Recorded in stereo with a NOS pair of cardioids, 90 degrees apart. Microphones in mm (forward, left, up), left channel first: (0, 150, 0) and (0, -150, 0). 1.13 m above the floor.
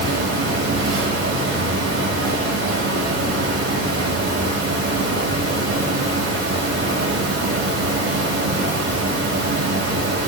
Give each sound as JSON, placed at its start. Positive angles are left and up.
{"t": 0.0, "sound": "a fan", "azimuth_deg": -50, "distance_m": 5.5}